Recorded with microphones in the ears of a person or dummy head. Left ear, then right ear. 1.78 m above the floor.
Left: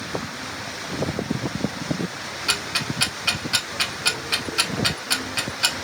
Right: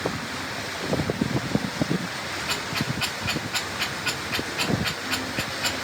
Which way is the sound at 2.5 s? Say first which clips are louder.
Left 6 dB; 65° left (ahead or behind).